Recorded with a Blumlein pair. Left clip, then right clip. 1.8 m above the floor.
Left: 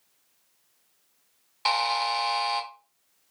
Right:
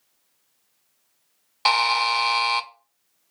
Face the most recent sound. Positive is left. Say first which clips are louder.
# right 5 dB
turn(degrees=-20)